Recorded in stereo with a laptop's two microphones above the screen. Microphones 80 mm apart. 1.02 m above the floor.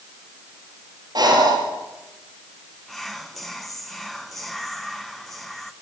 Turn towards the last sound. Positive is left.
turn(degrees=0)  # may be behind; listen again after turning